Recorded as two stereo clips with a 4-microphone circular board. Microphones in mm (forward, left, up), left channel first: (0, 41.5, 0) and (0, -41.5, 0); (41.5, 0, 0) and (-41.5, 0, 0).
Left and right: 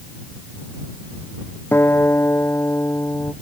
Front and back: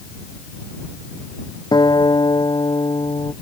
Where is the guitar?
30° left.